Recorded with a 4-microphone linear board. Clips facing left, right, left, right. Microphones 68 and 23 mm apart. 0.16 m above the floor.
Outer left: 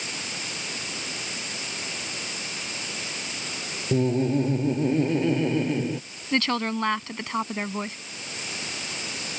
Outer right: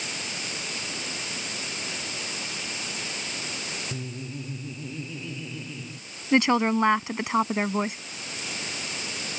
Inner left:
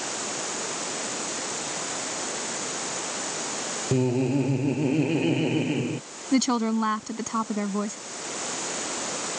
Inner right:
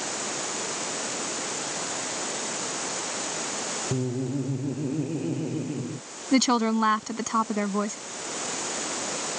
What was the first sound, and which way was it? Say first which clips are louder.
Laughter: outer left 14 dB, inner left 8 dB; 65° left (ahead or behind).